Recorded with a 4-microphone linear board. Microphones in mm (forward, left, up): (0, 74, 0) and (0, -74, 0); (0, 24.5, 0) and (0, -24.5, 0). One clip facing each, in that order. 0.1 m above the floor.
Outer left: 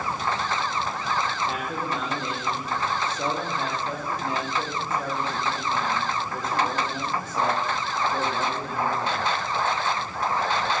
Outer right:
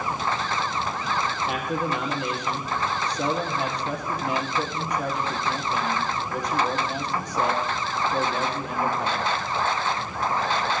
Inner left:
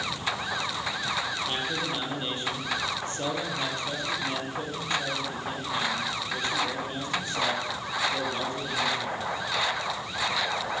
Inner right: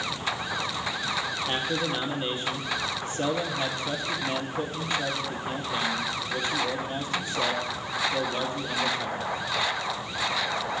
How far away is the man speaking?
About 2 m.